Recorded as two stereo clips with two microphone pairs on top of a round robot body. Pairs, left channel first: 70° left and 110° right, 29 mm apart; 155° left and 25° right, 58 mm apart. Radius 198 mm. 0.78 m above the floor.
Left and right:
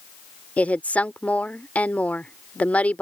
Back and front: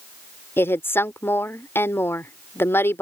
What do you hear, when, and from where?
0.6 s a woman speaking: 105° left